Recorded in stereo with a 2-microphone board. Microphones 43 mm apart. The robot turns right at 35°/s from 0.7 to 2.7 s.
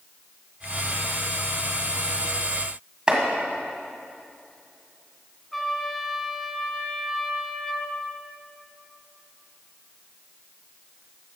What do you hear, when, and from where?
3.1 s chopping: 20° right (ahead or behind), 1.8 m
5.5 s a trumpet: 5° left (ahead or behind), 1.4 m